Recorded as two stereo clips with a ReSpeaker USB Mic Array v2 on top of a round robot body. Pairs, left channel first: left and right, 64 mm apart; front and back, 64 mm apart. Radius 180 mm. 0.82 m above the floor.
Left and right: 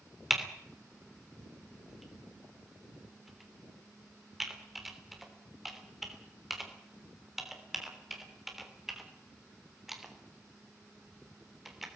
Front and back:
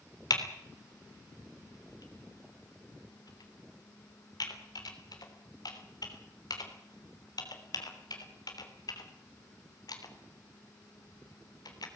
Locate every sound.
0.3 s typing on a keyboard: 5° right, 3.5 m